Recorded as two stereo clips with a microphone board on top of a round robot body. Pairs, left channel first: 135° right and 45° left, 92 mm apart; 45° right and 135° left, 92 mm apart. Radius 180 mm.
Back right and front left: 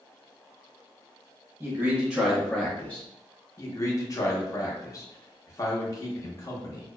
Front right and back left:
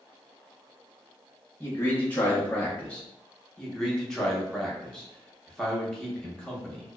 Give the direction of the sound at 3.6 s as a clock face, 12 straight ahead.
4 o'clock.